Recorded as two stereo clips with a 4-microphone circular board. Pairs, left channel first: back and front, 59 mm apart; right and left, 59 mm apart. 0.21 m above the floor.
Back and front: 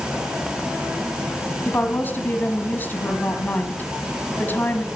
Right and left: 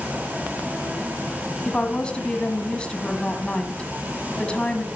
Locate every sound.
1.6 s a woman speaking: 150° right, 1.6 m